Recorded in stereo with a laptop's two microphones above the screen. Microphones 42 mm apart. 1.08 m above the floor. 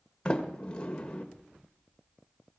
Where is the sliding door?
20° left (ahead or behind), 1.6 m.